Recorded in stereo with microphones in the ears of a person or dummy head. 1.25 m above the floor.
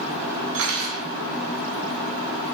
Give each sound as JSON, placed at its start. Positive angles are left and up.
{"t": 0.5, "sound": "cutlery clinking", "side_deg": -75, "distance_m": 1.6}